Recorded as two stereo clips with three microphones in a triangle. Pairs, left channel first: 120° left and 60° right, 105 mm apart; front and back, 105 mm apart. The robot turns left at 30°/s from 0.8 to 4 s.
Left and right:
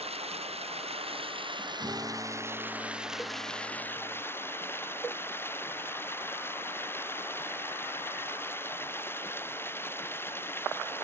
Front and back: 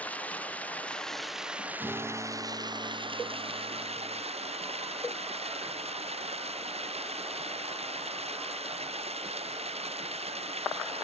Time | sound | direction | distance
0.0 | running water | 75° right | ?
1.8 | a guitar | 115° right | ?